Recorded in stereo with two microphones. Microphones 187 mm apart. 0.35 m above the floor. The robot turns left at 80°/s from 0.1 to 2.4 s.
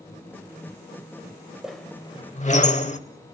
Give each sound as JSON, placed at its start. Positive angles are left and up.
{"t": 1.6, "sound": "a squeak", "side_deg": -5, "distance_m": 0.8}